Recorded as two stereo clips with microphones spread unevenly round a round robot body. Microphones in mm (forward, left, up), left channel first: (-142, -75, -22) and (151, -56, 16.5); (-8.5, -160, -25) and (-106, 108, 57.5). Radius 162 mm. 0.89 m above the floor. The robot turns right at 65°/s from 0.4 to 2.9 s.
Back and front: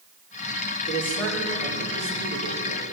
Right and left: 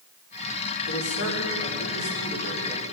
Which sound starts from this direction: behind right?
A man speaking, at 0.9 s.